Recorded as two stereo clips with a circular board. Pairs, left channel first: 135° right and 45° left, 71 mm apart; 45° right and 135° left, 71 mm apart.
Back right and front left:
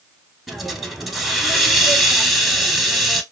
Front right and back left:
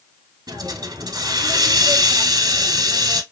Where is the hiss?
135° left, 0.8 m.